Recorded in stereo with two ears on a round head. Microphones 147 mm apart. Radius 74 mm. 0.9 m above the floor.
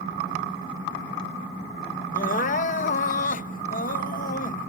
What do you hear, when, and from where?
2.1 s crying: 50° left (ahead or behind)